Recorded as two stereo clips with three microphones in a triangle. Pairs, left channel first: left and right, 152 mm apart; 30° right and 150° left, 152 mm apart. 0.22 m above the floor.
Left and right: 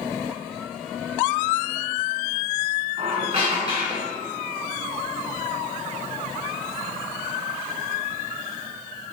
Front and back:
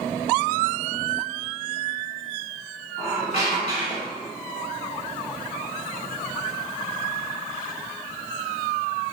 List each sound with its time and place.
3.0 s a squeak: 65° right, 1.8 m